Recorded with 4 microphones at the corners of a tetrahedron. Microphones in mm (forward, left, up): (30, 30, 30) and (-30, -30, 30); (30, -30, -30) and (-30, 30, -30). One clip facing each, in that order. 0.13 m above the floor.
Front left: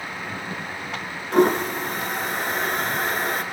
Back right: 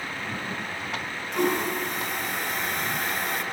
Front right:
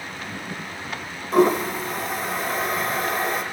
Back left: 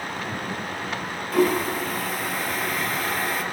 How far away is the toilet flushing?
About 0.7 m.